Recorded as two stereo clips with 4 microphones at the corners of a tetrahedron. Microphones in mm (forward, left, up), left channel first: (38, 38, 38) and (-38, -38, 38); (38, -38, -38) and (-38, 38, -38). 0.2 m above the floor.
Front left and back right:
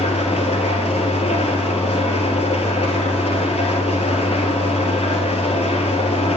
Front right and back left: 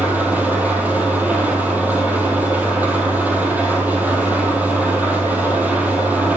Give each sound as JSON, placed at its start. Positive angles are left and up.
{"t": 0.0, "sound": "an engine running", "azimuth_deg": 60, "distance_m": 1.6}